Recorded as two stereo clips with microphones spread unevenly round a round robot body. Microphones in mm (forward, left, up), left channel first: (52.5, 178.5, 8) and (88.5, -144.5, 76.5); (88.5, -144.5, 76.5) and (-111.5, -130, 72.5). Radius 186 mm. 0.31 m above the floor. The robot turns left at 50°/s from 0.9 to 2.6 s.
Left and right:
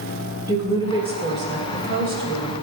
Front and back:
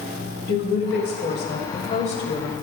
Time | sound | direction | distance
0.5 | a woman speaking | 5° left | 1.8 m